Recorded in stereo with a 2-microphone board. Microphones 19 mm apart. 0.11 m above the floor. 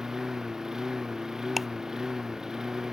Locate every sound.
0.0 s a lawn mower: 30° right (ahead or behind)
1.6 s ticking: 10° right (ahead or behind)